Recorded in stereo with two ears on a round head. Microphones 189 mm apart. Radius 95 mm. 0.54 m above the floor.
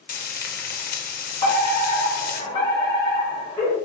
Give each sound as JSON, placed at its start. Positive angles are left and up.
{"t": 0.1, "sound": "frying", "side_deg": 40, "distance_m": 0.6}
{"t": 1.4, "sound": "a fire alarm", "side_deg": 20, "distance_m": 1.7}